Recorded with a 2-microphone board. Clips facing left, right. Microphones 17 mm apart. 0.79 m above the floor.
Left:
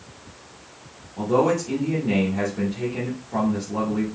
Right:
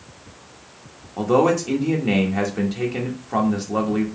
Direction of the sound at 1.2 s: 45° right (ahead or behind).